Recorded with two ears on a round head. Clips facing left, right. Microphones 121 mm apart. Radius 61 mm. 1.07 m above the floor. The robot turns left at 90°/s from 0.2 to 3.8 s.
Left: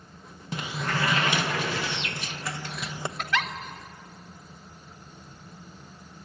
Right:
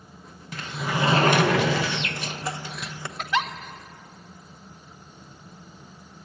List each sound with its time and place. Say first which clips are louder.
0.5 s a sliding door: right 1 dB; 25° left, 1.1 m; by 3.1 s 150° left, 1.1 m
3.2 s a giggle: right 4 dB; 5° right (ahead or behind), 1.2 m; by 3.5 s 30° right (ahead or behind), 1.2 m